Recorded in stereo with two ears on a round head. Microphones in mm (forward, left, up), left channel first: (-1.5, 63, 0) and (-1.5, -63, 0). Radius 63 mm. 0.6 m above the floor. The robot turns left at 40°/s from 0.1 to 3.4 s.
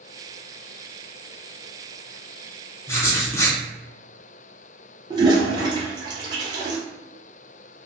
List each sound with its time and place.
2.9 s writing: 20° left (ahead or behind), 0.5 m
5.1 s a toilet flushing: 25° right (ahead or behind), 0.8 m